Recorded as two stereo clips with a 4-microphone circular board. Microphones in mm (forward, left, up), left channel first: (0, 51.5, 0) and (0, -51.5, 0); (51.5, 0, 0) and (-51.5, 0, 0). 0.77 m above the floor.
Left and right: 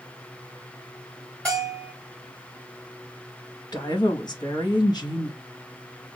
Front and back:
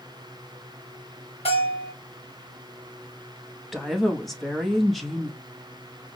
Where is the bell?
15° left, 4 m.